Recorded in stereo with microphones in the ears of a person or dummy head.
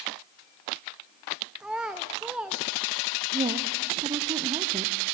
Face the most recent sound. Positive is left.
turn(degrees=-25)  # may be behind; listen again after turning